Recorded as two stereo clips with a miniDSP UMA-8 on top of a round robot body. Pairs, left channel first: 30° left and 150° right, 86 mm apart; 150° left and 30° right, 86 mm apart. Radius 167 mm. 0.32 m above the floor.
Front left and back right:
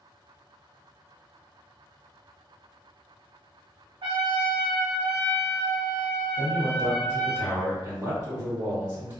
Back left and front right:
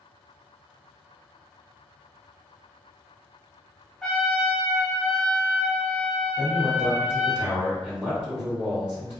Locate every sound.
4.0 s a trumpet: 125° right, 0.9 m
6.4 s a man speaking: 105° right, 1.9 m